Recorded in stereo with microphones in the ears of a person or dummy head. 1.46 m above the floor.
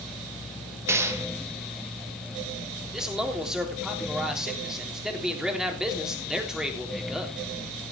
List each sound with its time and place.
0.9 s a gunshot: 15° right (ahead or behind), 2.0 m
2.9 s a man speaking: 5° right (ahead or behind), 3.5 m